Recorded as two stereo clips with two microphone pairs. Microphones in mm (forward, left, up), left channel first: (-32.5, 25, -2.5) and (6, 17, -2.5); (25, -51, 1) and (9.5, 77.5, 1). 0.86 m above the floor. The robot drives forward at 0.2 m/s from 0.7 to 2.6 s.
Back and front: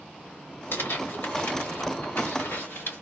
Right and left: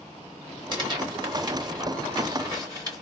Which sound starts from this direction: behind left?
Tearing paper, at 0.7 s.